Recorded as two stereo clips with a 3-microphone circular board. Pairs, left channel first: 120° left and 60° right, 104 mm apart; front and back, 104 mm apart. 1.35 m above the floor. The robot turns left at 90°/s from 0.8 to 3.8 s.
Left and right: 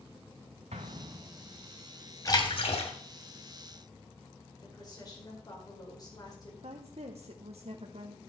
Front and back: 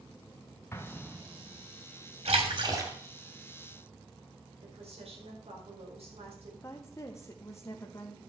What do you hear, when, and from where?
0.7 s an explosion: 65° right, 1.0 m; by 1.6 s 140° right, 1.0 m
2.2 s a splash: 175° left, 2.5 m; by 2.9 s 115° left, 2.5 m
4.6 s a woman speaking: 170° left, 4.5 m
6.6 s a woman speaking: 60° right, 1.0 m